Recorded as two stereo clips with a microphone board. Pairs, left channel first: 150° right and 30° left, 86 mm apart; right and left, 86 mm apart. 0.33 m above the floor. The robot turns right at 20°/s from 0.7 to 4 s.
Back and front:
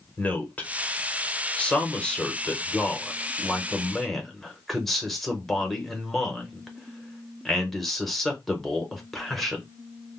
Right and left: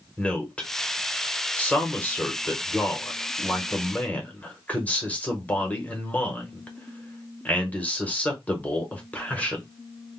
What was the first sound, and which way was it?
A man speaking, 130° right.